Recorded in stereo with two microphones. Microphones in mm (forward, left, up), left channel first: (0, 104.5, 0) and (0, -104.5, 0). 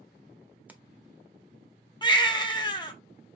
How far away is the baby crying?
About 0.7 m.